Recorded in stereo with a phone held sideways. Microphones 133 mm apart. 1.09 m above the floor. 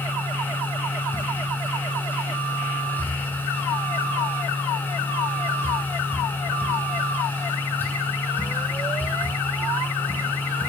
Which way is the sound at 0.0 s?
15° left (ahead or behind).